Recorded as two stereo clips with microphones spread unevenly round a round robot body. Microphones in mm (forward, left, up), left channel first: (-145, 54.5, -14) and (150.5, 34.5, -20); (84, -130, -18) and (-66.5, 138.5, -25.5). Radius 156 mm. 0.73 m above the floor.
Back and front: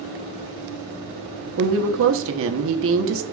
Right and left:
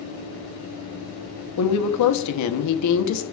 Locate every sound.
1.6 s a woman speaking: 40° right, 1.0 m